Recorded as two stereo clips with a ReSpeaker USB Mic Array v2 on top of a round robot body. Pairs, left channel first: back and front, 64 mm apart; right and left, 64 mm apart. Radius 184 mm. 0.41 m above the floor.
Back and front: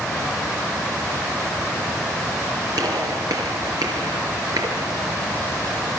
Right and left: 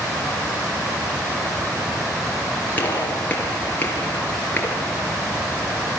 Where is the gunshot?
25° right, 3.5 m.